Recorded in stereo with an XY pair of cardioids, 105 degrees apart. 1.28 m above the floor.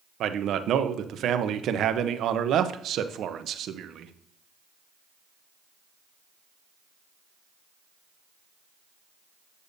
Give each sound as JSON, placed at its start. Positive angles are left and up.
{"t": 0.2, "sound": "a man speaking", "azimuth_deg": -65, "distance_m": 0.8}